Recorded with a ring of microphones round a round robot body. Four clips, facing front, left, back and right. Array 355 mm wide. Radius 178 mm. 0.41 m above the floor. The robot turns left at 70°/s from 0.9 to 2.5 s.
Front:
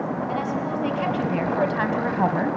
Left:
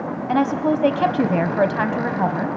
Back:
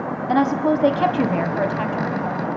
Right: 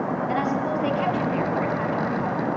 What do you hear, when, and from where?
0.3 s a woman speaking: 145° left, 2.5 m; by 2.6 s 30° left, 2.5 m